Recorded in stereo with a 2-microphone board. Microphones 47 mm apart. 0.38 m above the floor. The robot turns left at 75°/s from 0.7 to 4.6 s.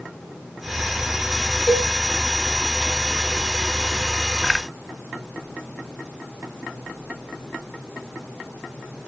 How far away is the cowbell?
About 1.5 m.